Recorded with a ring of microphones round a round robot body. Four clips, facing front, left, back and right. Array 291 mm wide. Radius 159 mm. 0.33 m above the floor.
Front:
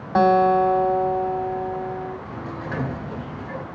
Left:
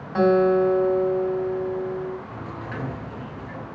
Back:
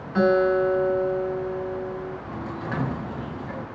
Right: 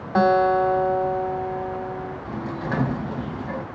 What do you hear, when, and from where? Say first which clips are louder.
0.1 s a guitar: even, front 3 dB; 30° right, 3 m
2.2 s a sliding door: right 6 dB, even; 90° right, 1.6 m